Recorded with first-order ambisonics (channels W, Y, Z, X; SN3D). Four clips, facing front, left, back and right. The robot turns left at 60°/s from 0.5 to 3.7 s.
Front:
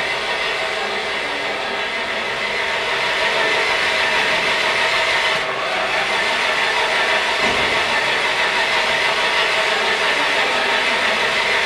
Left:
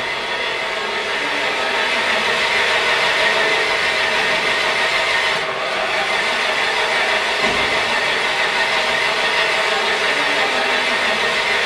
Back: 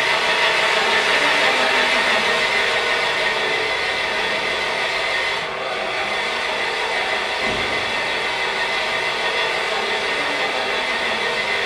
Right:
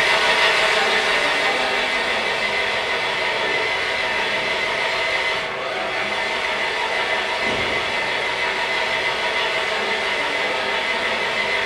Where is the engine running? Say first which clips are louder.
Right 5 dB, back 3 dB; 130° right, 0.9 m; by 11.7 s 40° left, 0.9 m.